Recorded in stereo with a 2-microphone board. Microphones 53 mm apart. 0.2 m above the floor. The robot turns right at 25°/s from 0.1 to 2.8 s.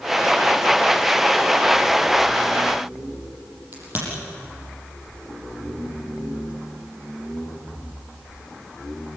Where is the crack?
35° right (ahead or behind), 8 m.